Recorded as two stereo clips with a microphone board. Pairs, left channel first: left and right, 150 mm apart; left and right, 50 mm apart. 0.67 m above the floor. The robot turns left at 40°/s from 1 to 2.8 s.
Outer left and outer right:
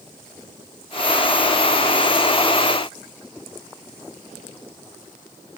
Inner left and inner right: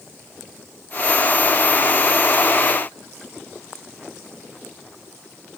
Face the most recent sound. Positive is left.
No sound to turn to.